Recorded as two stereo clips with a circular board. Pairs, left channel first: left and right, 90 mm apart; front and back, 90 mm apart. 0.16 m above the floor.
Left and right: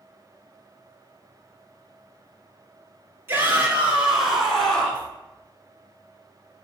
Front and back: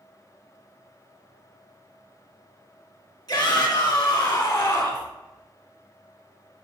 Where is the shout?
25° right, 2.5 m; by 5.1 s 20° left, 2 m.